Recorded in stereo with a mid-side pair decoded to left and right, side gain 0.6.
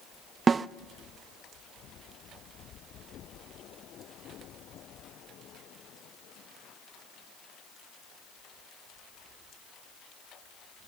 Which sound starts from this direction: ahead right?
A snare drum, at 0.5 s.